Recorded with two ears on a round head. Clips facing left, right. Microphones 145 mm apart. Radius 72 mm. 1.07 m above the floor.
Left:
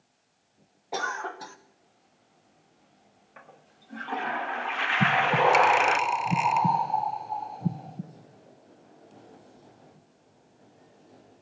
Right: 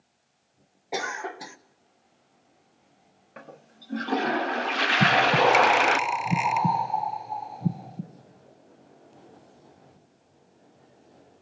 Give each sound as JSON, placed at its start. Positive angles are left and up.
{"t": 0.9, "sound": "a cough", "side_deg": -15, "distance_m": 0.9}
{"t": 3.4, "sound": "a toilet flushing", "side_deg": -45, "distance_m": 0.5}
{"t": 5.0, "sound": "breathing", "side_deg": -5, "distance_m": 1.0}